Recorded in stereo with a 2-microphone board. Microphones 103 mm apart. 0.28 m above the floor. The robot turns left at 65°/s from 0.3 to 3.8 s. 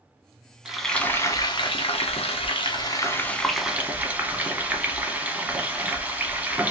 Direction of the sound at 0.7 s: 170° right.